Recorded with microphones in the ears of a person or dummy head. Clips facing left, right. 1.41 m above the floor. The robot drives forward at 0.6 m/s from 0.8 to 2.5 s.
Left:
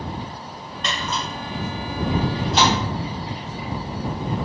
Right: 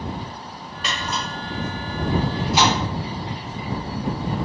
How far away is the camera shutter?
About 1.1 m.